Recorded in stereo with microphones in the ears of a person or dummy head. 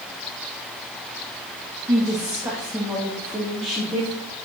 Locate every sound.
1.9 s a woman speaking: 20° right (ahead or behind), 1.5 m; by 4.1 s centre (ahead or behind), 3.5 m